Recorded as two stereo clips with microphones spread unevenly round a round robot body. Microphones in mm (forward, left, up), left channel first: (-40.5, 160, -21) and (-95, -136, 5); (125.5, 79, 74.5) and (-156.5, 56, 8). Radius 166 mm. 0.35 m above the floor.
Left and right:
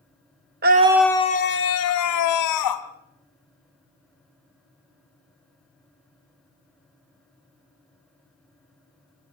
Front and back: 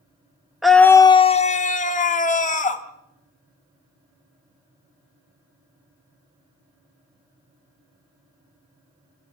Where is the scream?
115° right, 0.9 m; by 2.8 s 75° left, 2.5 m.